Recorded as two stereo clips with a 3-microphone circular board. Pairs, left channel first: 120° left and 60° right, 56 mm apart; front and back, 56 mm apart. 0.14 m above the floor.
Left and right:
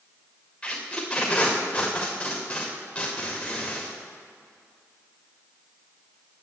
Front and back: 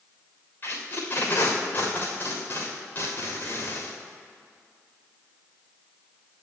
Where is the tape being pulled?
50° left, 3.5 m.